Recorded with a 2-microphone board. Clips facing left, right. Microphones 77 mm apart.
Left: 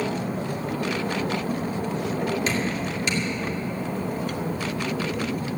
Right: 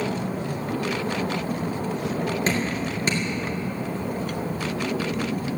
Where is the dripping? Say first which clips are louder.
Right 1 dB; 40° right (ahead or behind), 2 m.